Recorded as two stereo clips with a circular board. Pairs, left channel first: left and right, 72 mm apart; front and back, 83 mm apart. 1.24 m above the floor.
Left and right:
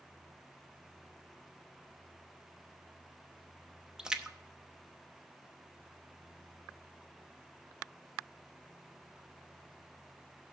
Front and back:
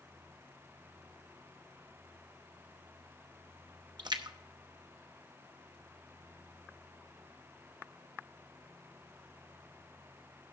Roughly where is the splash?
Behind.